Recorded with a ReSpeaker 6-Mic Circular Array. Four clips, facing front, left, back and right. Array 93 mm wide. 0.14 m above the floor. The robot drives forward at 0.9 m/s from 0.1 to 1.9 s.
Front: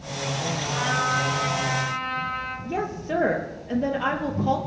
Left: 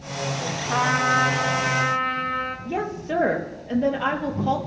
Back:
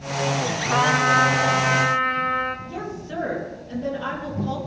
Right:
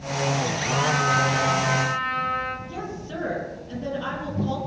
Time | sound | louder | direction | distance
0.7 | a trumpet | left 2 dB, back 7 dB | 150° left | 2 m
2.6 | a woman speaking | left 7 dB, front 4 dB | 55° left | 3.5 m